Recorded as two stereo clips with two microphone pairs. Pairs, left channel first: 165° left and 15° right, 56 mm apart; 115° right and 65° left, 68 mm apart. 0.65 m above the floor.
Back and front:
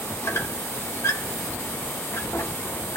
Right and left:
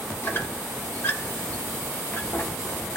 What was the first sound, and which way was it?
A squeak, 170° right.